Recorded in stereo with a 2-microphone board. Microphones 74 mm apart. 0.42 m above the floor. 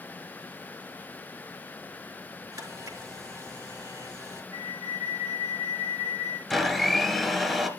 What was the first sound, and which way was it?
A camera shutter, 50° right (ahead or behind).